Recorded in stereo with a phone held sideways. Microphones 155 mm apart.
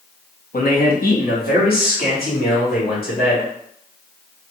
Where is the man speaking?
65° left (ahead or behind), 0.9 m; by 3.5 s 75° left (ahead or behind), 2.5 m.